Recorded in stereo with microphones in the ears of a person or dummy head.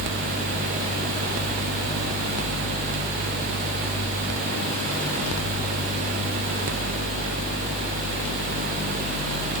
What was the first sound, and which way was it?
Only background noise.